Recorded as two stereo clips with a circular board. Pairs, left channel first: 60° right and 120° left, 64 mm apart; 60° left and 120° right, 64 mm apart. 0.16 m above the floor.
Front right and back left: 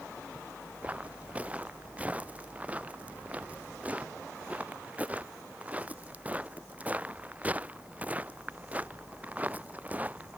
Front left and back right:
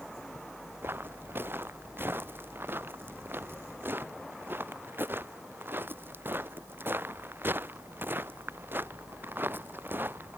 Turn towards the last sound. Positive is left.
turn(degrees=-175)